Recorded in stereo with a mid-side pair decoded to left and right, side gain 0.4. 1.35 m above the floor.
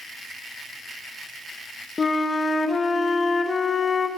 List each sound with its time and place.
2.0 s a flute: 40° left, 1.7 m